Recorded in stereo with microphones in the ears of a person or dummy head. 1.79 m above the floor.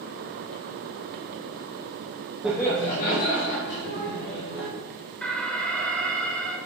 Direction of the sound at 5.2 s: 10° left (ahead or behind).